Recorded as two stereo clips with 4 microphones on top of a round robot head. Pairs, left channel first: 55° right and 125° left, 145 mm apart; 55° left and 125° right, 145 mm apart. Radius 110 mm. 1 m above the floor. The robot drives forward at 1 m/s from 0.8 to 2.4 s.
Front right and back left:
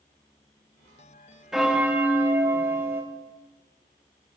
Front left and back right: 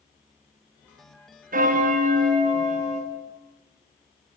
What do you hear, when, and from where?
1.5 s a bell: 150° right, 1.4 m; by 3.0 s 160° right, 2 m